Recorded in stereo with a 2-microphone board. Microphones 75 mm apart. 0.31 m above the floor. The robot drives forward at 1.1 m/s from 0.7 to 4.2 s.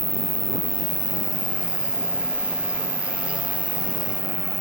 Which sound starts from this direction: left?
An insect, at 0.0 s.